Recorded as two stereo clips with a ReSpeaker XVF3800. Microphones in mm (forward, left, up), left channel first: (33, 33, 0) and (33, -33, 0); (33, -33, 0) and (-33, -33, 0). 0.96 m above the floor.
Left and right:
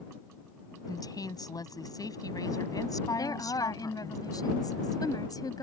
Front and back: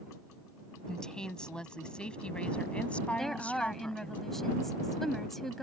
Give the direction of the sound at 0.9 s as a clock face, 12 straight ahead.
9 o'clock.